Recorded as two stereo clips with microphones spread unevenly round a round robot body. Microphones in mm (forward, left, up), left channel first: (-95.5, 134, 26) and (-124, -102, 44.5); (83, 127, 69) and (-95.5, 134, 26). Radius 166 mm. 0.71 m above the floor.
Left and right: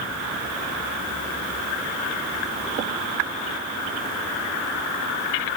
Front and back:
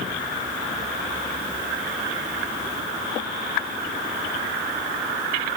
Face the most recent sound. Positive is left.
No sound to turn to.